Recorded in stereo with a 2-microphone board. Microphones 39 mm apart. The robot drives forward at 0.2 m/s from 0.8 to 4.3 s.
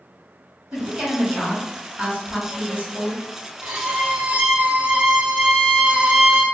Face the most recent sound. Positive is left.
turn(degrees=-40)  # may be behind; listen again after turning